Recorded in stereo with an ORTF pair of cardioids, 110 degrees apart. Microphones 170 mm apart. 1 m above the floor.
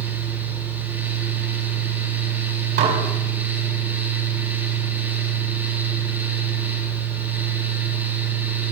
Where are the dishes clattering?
70° right, 4 m.